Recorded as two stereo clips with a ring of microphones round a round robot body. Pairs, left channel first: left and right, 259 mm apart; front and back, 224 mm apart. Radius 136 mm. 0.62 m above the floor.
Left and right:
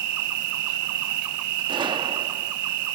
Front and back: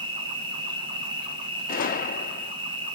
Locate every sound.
0.0 s an insect: 110° right, 0.8 m
1.7 s a gunshot: 25° right, 0.7 m